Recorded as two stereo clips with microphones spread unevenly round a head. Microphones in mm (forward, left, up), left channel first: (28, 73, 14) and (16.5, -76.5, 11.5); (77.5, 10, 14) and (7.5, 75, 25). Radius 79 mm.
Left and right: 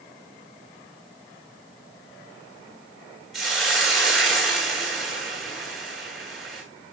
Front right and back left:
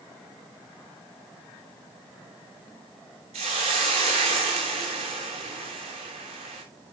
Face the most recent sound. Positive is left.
turn(degrees=175)